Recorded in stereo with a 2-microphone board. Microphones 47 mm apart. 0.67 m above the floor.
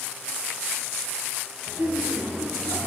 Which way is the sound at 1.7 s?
30° right (ahead or behind).